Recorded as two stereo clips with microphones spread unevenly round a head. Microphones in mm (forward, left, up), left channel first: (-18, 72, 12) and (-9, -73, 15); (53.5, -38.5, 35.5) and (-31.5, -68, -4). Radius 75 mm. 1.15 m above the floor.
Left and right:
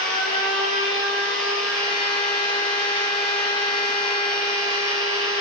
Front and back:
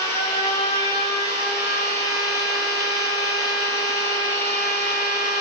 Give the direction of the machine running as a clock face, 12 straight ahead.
10 o'clock.